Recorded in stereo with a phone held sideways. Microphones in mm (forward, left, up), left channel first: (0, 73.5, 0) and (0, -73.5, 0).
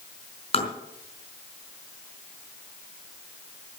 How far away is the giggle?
I don't hear a giggle.